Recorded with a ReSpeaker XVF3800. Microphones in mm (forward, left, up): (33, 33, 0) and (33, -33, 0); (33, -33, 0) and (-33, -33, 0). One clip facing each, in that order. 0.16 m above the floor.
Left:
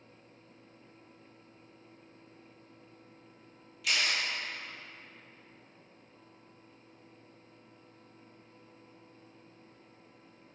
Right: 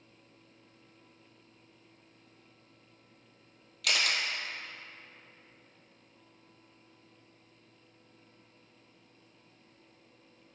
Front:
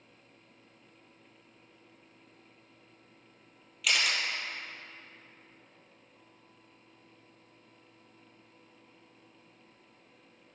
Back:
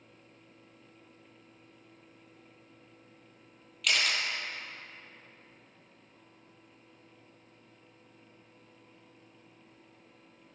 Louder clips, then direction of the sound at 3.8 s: Right 1 dB, even; 85° right.